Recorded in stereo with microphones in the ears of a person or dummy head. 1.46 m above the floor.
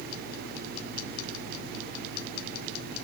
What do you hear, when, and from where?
Only background noise.